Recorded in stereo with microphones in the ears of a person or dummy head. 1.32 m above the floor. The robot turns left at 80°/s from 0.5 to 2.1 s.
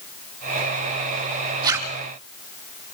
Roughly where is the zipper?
Right.